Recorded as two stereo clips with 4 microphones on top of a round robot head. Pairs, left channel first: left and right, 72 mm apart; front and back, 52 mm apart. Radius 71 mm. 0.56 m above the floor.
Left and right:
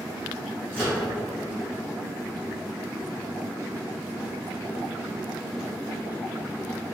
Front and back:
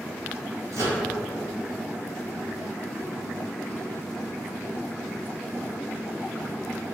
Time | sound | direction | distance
0.7 | a microwave | 155° right | 1.7 m